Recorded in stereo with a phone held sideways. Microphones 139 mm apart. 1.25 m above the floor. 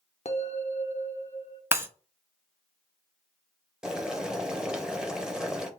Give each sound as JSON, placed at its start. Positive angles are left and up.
{"t": 0.2, "sound": "a bell", "side_deg": 55, "distance_m": 0.6}
{"t": 1.7, "sound": "breaking glass", "side_deg": -15, "distance_m": 0.6}
{"t": 3.8, "sound": "boiling", "side_deg": -5, "distance_m": 0.7}